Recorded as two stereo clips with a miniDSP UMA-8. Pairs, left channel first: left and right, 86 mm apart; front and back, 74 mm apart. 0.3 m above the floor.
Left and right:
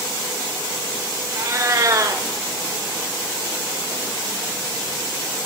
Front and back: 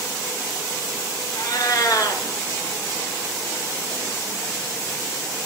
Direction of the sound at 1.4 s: 35° right.